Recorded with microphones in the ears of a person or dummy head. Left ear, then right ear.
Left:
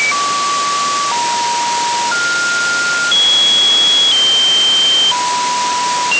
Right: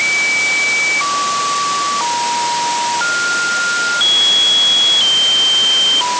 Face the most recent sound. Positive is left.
No sound to turn to.